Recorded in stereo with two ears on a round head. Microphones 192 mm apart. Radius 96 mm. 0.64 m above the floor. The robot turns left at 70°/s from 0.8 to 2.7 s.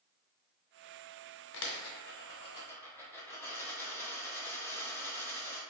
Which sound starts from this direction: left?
A dropped coin, at 1.5 s.